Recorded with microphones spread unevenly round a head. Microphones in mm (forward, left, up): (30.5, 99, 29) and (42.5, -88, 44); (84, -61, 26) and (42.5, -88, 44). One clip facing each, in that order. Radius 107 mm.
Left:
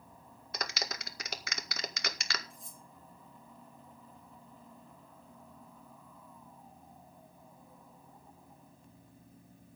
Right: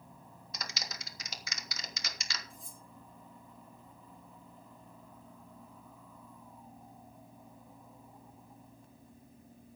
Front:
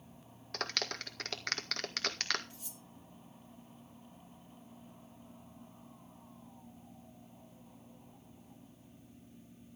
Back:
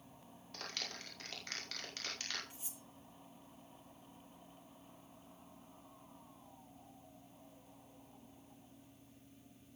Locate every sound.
0.5 s a clap: 60° left, 1.9 m
2.5 s cutlery clinking: 80° right, 9 m